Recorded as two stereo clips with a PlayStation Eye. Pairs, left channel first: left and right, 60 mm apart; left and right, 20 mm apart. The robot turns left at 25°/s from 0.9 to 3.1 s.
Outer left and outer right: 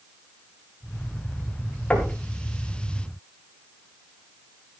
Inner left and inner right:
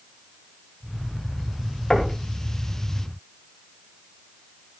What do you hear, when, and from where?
1.9 s knocking: 20° left (ahead or behind), 3 m; by 2.1 s 25° left (ahead or behind), 3 m